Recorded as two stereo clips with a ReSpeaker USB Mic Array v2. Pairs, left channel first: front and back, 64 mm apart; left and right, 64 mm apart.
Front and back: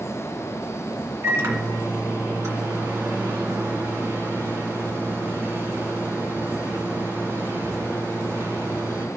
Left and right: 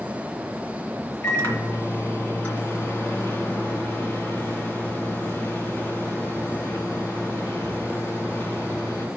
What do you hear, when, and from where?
1.2 s a microwave: 135° left, 1.8 m